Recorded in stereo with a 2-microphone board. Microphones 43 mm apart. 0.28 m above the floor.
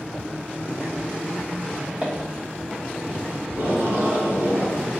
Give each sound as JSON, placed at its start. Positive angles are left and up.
{"t": 2.0, "sound": "footsteps", "side_deg": -15, "distance_m": 1.6}
{"t": 3.5, "sound": "tape being pulled", "side_deg": -60, "distance_m": 1.2}